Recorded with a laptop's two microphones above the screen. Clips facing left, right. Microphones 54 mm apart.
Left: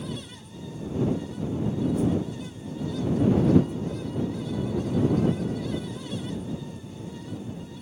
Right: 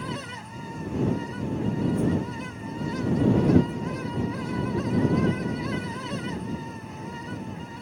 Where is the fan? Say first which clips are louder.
Right 3 dB; 55° right (ahead or behind).